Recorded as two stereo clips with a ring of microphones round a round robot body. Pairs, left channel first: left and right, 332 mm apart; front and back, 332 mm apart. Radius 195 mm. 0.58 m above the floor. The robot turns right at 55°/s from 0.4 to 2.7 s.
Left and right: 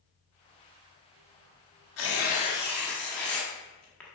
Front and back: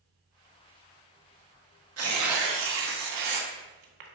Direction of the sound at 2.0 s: 135° left.